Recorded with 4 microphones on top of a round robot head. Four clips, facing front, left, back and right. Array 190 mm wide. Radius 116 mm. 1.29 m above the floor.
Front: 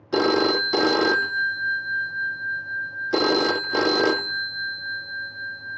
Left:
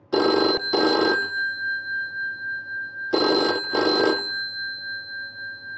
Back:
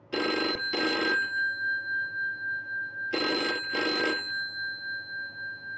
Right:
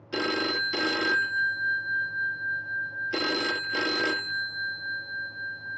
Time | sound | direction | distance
0.1 | a phone ringing | 55° left | ?